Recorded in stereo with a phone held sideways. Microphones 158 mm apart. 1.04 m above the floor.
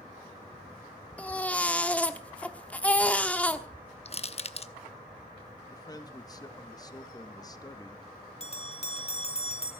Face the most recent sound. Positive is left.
turn(degrees=40)  # may be behind; listen again after turning